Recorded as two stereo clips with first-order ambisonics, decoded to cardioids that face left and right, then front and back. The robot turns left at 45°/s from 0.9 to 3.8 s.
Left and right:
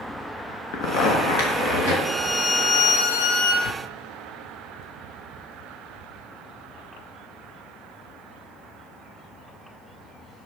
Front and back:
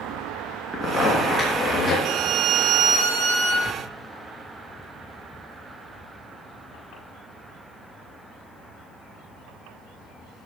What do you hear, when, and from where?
0.7 s a zipper: 105° left, 4 m; by 1.9 s 60° left, 4 m
2.0 s a violin: 170° left, 4 m; by 3.5 s 105° left, 4 m
3.6 s tearing paper: 100° left, 3.5 m; by 5.7 s 90° left, 3.5 m